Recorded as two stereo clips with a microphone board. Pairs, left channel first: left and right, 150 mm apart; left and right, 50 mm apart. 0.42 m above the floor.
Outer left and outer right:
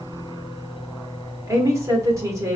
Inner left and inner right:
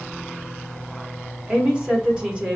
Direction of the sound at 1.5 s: 20° right (ahead or behind).